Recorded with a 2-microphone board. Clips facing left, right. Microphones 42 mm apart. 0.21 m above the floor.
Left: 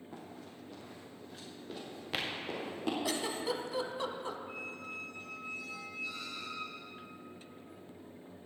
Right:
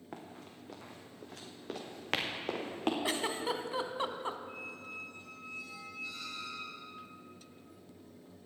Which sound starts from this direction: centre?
A squeak, at 4.5 s.